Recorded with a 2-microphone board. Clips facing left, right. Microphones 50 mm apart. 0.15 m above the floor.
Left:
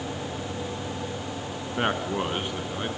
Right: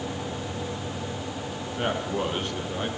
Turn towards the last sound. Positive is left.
turn(degrees=5)  # may be behind; listen again after turning